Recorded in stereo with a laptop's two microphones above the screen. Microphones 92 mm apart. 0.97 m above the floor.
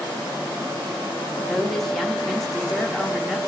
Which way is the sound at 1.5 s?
5° left (ahead or behind).